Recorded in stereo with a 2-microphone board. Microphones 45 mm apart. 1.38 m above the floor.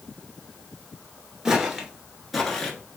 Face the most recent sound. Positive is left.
turn(degrees=15)  # may be behind; listen again after turning